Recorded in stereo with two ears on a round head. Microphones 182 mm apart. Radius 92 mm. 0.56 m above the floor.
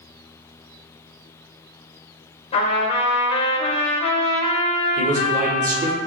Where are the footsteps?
I don't hear footsteps.